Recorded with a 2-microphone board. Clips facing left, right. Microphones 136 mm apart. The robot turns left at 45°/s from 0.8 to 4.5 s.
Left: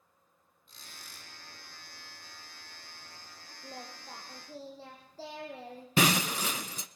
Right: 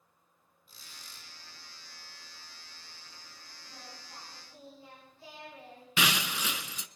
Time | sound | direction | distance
0.7 | a squeak | 5° right (ahead or behind) | 9.5 m
3.6 | singing | 125° left | 7 m
6.0 | breaking glass | 40° left (ahead or behind) | 0.8 m